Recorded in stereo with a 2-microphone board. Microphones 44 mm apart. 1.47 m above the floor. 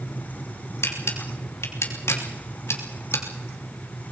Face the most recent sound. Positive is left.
turn(degrees=80)